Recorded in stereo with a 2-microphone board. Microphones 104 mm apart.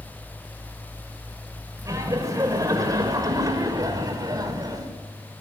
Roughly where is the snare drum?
No snare drum in this recording.